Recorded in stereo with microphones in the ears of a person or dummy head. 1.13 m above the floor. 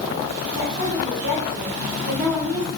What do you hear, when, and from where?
0.5 s a woman speaking: 80° right, 4 m